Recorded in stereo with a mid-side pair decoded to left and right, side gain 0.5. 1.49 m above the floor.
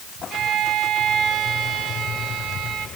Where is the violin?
60° right, 3.5 m.